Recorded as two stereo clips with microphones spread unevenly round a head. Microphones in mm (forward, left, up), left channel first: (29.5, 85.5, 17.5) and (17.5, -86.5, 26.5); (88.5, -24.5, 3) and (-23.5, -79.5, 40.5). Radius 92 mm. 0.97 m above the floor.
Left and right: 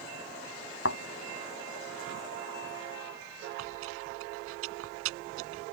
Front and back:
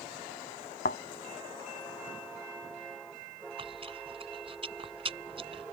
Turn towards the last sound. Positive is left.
turn(degrees=-110)